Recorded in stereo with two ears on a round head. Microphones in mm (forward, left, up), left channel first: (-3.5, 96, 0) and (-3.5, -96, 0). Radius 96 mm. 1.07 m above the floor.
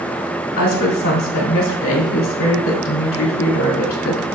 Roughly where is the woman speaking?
Left.